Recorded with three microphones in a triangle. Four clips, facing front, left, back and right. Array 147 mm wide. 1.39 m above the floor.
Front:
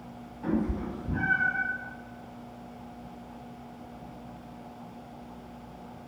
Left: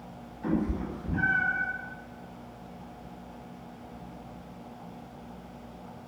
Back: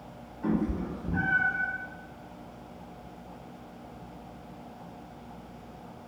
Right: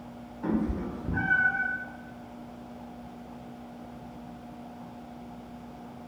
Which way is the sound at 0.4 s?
95° right.